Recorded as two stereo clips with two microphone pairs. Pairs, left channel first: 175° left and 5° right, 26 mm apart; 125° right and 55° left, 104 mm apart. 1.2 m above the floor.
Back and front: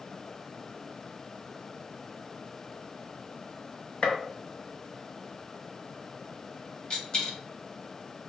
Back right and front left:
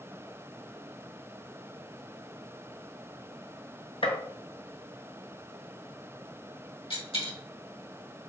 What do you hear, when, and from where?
4.0 s a gunshot: 150° right, 0.9 m
6.9 s a dropped coin: 140° right, 2.0 m